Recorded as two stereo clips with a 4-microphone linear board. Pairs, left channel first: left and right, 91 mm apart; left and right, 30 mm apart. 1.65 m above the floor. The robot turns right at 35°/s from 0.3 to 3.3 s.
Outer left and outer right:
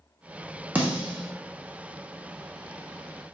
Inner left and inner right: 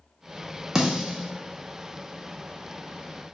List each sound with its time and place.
0.8 s a snare drum: 15° right (ahead or behind), 0.8 m; by 1.3 s 10° right (ahead or behind), 0.8 m